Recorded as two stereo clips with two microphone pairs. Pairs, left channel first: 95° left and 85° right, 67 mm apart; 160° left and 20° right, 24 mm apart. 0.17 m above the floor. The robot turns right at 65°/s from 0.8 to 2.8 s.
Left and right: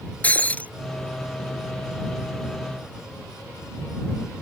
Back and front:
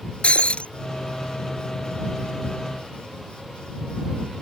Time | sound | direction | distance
0.2 | breaking glass | 160° left | ?